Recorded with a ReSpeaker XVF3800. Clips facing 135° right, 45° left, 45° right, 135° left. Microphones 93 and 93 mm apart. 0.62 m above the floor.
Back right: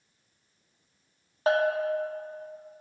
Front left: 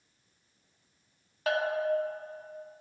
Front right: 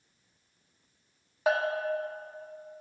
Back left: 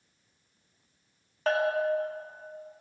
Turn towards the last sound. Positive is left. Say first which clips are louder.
# back right 4 dB, back left 2 dB
turn(degrees=-120)